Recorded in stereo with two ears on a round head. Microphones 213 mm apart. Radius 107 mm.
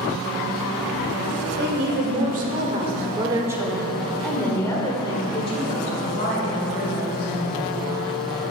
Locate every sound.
1.6 s a woman speaking: 50° right (ahead or behind), 2.0 m; by 7.7 s 45° left (ahead or behind), 3 m